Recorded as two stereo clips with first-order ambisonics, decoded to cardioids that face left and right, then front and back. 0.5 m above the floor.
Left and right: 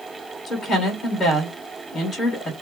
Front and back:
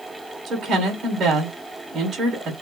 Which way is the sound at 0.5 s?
155° left.